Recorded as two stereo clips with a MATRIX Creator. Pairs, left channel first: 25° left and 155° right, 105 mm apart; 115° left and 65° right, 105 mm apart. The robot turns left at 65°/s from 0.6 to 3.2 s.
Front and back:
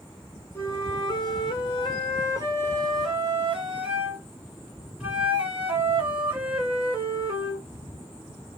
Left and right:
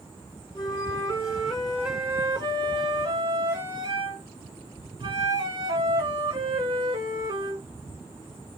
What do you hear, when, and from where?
0.6 s a flute: 90° left, 1.7 m; by 7.7 s 80° right, 1.7 m